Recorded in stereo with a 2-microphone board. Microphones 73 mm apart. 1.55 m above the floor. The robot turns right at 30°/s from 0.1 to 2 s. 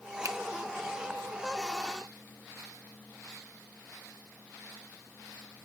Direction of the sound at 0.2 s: 50° right (ahead or behind).